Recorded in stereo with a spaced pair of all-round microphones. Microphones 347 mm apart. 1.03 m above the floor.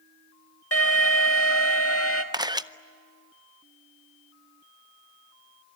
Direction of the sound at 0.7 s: 40° left (ahead or behind).